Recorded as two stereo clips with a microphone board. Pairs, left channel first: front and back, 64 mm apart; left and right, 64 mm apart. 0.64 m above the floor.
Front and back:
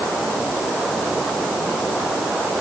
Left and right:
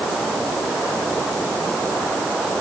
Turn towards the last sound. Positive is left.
No sound to turn to.